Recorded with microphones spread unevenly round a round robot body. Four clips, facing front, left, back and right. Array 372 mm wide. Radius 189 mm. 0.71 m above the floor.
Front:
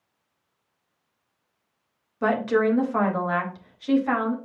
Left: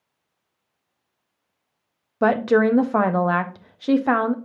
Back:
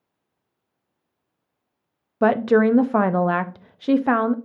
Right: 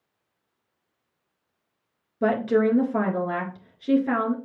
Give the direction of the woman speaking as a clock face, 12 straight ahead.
8 o'clock.